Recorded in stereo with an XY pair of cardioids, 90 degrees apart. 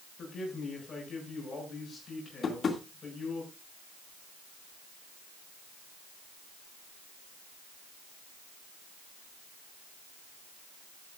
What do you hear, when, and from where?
0.2 s a man speaking: 50° left, 7.5 m
2.4 s tapping: 55° left, 2 m